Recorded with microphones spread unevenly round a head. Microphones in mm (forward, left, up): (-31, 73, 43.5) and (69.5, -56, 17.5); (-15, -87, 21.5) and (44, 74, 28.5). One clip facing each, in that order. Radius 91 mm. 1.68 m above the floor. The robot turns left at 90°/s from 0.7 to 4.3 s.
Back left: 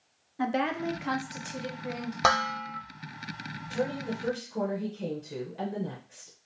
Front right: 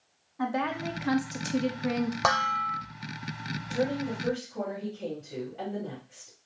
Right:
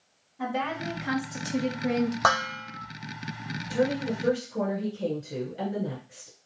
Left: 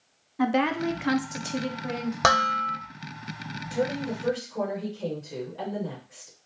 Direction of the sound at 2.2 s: 65° left.